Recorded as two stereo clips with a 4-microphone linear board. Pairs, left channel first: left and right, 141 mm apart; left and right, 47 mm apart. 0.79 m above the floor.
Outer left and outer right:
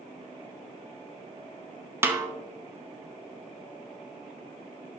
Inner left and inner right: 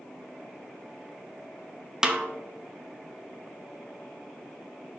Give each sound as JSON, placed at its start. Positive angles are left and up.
{"t": 2.0, "sound": "a snare drum", "side_deg": -15, "distance_m": 0.7}